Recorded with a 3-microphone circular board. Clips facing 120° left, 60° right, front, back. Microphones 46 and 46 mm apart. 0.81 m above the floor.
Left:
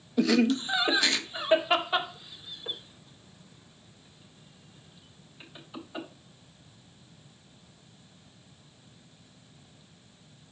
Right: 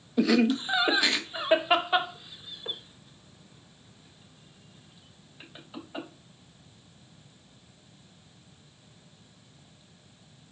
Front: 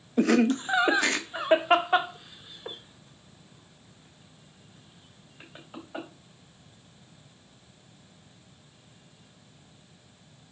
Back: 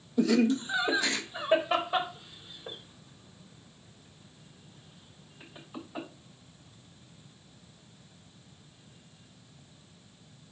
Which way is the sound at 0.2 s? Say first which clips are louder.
Right 1 dB, front 2 dB; 20° left.